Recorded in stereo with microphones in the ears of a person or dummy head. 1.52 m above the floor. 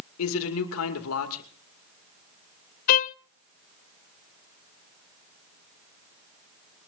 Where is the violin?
45° left (ahead or behind), 0.6 m.